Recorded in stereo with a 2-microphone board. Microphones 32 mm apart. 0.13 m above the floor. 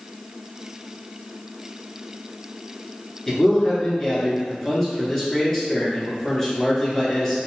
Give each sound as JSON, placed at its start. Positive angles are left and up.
{"t": 3.3, "sound": "a man speaking", "side_deg": 10, "distance_m": 1.3}